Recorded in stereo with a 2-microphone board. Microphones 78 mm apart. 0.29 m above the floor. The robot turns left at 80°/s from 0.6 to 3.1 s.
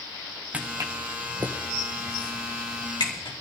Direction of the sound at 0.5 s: 15° right (ahead or behind).